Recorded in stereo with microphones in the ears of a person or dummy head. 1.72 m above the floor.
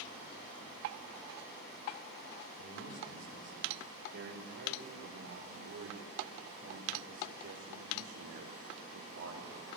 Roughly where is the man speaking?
Right.